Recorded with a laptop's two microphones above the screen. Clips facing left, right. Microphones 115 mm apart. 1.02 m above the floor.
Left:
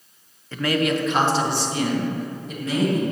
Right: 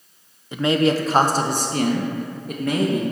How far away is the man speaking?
About 0.5 m.